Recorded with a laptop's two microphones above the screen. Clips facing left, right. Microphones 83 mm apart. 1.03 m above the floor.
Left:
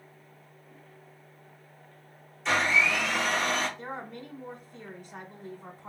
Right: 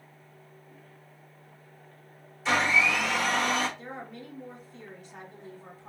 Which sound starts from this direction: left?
A woman speaking, at 3.8 s.